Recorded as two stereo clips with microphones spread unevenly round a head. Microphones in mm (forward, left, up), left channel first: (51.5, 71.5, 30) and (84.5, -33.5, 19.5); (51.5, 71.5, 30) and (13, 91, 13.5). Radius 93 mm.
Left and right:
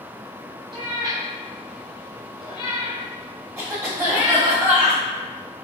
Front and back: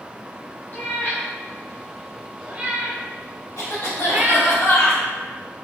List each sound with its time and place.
0.7 s a cat meowing: 25° right, 0.8 m; by 4.6 s 105° left, 1.4 m
3.6 s a cough: 5° right, 1.7 m